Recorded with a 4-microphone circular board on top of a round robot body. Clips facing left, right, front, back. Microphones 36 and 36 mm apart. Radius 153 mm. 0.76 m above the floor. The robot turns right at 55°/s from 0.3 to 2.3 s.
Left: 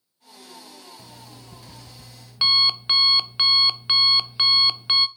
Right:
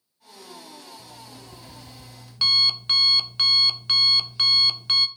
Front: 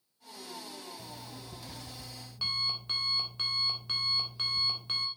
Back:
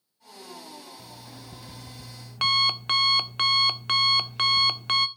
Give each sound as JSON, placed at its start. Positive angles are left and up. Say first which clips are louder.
{"t": 1.0, "sound": "an alarm clock", "louder": "right 1 dB, back 1 dB", "azimuth_deg": 90, "distance_m": 0.7}